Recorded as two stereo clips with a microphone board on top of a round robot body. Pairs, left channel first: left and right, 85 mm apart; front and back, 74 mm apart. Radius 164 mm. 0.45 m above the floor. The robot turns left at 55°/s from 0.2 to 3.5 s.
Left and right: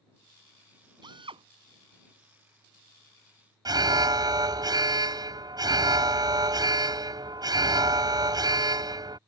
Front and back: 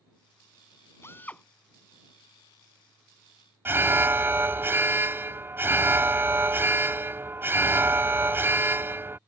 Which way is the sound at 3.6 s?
125° right.